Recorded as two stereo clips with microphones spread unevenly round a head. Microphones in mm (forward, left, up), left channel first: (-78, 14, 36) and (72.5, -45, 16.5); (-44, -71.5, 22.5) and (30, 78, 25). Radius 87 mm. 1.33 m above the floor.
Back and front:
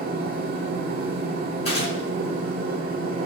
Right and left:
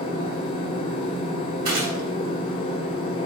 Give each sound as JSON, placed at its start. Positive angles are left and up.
{"t": 0.0, "sound": "a machine running", "azimuth_deg": -55, "distance_m": 0.8}
{"t": 1.6, "sound": "a gunshot", "azimuth_deg": 100, "distance_m": 2.0}